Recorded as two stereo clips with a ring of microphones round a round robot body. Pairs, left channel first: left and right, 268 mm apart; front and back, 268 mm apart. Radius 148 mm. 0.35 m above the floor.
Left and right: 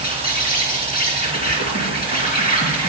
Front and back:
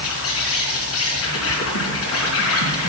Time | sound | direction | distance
0.0 | an insect | 35° left | 3.5 m